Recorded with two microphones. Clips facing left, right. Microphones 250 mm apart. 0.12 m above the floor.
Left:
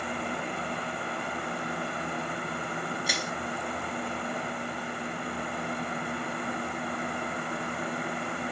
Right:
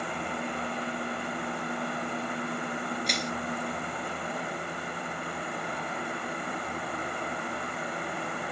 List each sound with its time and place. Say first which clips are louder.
3.1 s crushing: right 2 dB; 5° left (ahead or behind), 0.6 m